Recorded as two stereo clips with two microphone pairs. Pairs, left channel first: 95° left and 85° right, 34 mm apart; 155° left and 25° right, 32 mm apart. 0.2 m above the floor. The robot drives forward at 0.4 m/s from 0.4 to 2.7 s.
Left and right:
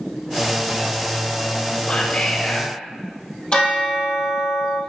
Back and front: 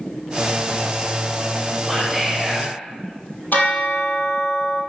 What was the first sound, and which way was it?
Whispering, 65° left.